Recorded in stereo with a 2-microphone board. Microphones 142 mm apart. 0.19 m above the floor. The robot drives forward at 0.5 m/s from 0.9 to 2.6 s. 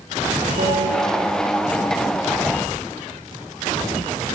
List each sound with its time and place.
0.6 s a bell: 80° right, 8 m